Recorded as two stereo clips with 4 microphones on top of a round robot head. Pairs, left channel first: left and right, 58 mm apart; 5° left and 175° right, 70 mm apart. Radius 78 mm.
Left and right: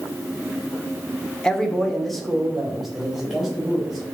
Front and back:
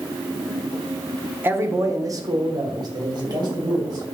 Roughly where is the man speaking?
Behind left.